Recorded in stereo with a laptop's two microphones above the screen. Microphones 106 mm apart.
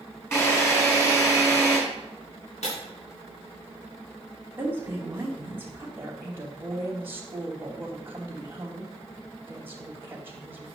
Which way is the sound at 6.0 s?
20° right (ahead or behind).